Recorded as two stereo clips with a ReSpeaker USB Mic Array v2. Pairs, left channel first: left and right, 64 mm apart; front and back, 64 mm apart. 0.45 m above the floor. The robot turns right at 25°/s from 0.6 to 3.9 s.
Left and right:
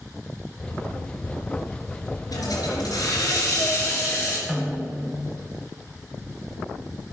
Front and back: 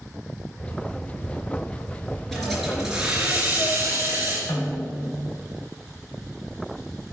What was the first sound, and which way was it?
A hiss, 85° left.